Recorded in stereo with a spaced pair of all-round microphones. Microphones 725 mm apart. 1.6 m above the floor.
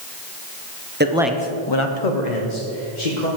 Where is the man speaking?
15° right (ahead or behind), 1.2 m; by 3.3 s 80° left, 2.5 m.